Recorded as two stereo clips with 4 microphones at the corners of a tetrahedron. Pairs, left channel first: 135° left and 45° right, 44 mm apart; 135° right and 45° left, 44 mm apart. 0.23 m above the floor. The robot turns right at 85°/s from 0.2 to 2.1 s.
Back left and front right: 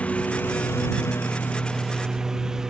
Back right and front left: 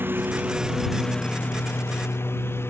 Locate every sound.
0.0 s a lawn mower: 75° left; by 2.7 s 120° right